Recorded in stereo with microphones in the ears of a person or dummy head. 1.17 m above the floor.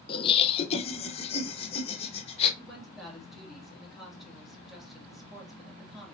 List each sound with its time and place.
0.1 s laughter: 30° left (ahead or behind), 0.7 m; by 2.5 s 35° left (ahead or behind), 1.8 m
2.6 s a woman speaking: centre (ahead or behind), 2 m